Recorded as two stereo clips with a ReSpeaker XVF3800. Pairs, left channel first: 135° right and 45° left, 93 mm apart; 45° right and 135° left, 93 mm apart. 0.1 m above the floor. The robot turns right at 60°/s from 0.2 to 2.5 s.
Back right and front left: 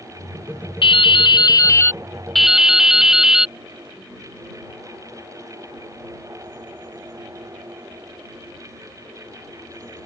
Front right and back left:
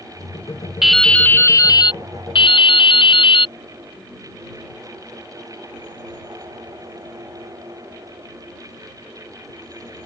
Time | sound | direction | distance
0.8 | dripping | 140° right | ?